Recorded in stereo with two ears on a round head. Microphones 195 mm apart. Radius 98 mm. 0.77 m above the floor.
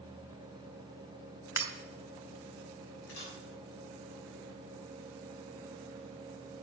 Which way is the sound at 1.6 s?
15° right (ahead or behind).